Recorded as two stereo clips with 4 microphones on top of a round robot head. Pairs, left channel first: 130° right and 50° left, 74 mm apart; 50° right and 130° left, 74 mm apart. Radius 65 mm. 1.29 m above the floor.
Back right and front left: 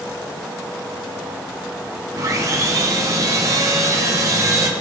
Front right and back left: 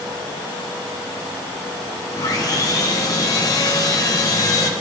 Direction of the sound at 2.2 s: Straight ahead.